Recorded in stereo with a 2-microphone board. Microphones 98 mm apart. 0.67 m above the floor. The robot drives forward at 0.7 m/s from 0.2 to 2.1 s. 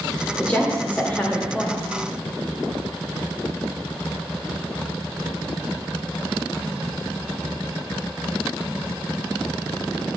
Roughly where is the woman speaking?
Centre.